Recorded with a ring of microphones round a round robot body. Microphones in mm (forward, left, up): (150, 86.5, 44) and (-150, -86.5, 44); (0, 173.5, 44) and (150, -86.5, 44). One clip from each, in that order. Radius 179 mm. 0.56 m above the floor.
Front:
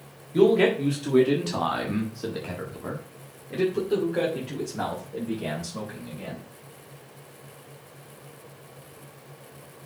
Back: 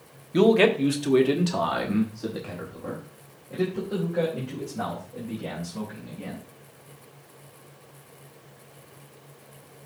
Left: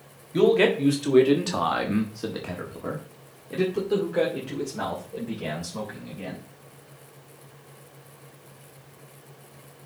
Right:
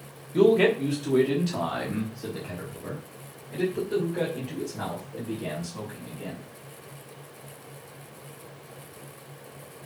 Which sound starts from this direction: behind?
A man speaking, at 0.3 s.